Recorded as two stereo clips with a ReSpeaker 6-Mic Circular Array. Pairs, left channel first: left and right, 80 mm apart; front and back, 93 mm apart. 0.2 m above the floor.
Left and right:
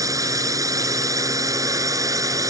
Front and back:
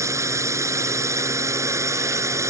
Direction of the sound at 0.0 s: 130° right.